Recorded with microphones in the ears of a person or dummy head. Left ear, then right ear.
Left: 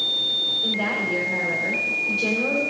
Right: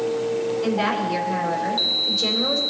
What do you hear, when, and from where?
0.6 s a woman speaking: 20° right (ahead or behind), 4.5 m